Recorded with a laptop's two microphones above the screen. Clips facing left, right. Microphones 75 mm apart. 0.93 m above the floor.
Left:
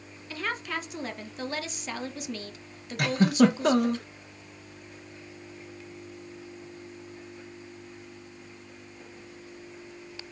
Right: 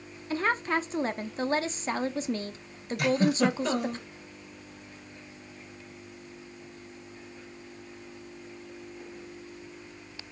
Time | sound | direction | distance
0.3 | a woman speaking | 30° right (ahead or behind) | 0.5 m
3.0 | a giggle | 55° left (ahead or behind) | 0.8 m